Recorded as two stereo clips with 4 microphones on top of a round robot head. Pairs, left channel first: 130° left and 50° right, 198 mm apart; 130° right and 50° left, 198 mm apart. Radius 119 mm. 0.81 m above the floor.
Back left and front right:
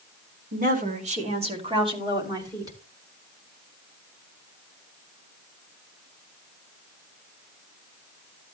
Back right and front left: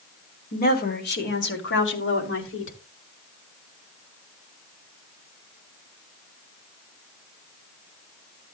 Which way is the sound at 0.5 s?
90° right.